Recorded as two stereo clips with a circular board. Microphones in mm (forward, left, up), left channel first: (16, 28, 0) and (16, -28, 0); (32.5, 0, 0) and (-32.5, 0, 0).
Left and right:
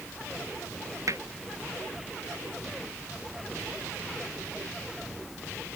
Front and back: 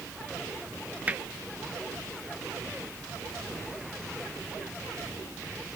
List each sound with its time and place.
1.1 s hammering: 110° right